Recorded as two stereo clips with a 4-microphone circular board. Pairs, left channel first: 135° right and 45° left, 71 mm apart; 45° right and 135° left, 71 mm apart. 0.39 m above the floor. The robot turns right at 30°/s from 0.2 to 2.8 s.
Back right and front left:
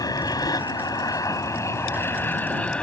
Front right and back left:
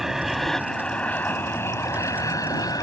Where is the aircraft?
140° right; by 2.8 s 60° right.